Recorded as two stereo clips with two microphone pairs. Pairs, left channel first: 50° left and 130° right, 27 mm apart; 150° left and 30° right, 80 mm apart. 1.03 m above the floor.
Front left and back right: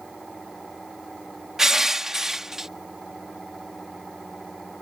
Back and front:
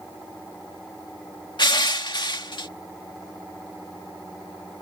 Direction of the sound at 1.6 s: 160° left.